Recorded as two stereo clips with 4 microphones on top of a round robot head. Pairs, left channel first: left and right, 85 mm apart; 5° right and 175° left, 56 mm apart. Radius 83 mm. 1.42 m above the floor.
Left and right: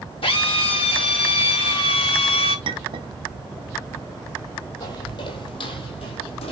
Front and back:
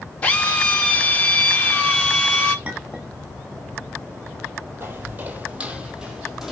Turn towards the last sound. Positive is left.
turn(degrees=95)